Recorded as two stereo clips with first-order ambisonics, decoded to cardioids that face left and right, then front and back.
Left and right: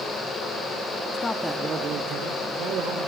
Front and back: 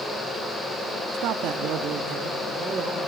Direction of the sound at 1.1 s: 150° left.